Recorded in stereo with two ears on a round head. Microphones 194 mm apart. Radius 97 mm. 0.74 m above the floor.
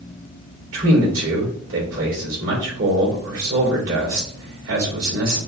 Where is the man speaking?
65° right (ahead or behind), 2.5 m.